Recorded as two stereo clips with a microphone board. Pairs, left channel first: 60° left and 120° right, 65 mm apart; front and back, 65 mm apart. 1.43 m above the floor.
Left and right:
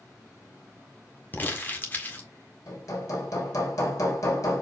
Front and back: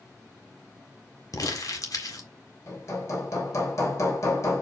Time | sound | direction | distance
1.3 | crumpling | straight ahead | 1.8 m
2.7 | hammering | 30° left | 2.5 m